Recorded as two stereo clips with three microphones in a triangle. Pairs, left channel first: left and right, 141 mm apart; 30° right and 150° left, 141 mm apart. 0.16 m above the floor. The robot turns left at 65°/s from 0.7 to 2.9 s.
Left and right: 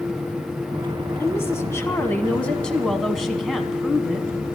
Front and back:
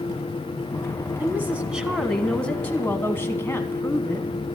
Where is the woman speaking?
115° left, 1.2 m; by 4.3 s 5° left, 1.2 m.